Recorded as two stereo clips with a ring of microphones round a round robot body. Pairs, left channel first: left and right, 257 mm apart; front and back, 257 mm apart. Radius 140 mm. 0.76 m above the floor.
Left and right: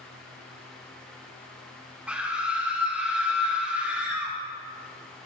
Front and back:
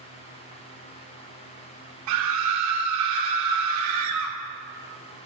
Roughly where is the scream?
Behind.